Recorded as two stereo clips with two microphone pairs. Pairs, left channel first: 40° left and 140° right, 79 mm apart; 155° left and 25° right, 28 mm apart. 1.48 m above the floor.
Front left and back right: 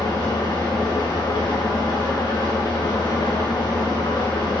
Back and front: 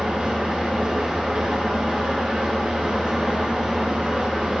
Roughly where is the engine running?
Ahead left.